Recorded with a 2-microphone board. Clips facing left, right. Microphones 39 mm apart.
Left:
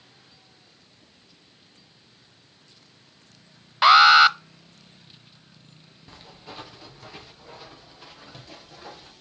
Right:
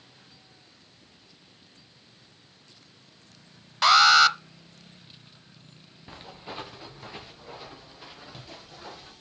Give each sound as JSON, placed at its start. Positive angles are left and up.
{"t": 3.8, "sound": "an alarm", "side_deg": 20, "distance_m": 0.6}
{"t": 6.1, "sound": "footsteps", "side_deg": -20, "distance_m": 1.7}